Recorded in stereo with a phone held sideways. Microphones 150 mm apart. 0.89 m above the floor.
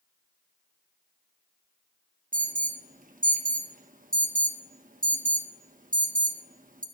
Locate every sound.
2.3 s an alarm: 65° right (ahead or behind), 0.9 m